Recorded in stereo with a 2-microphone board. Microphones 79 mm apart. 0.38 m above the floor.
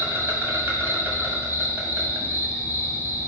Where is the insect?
30° right (ahead or behind), 1.6 m.